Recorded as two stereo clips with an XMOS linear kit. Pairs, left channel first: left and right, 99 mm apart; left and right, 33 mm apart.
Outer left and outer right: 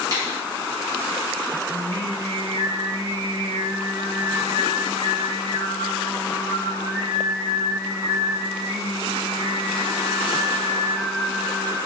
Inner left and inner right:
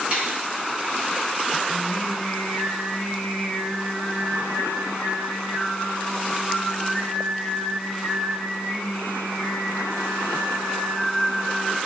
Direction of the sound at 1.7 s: 25° left (ahead or behind).